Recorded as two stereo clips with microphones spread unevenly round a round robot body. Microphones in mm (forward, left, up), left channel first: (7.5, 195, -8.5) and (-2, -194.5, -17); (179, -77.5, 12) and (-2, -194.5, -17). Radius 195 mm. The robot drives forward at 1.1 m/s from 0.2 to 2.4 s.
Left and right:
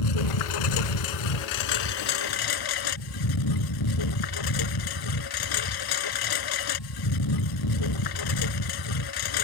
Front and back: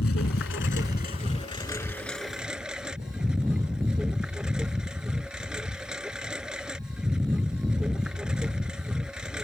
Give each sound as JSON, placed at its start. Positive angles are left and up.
{"t": 0.0, "sound": "a lawn mower", "azimuth_deg": 80}